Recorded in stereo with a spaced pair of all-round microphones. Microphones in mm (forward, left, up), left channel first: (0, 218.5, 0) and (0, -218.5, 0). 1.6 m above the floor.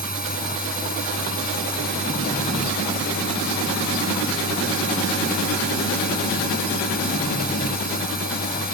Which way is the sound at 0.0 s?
20° left (ahead or behind).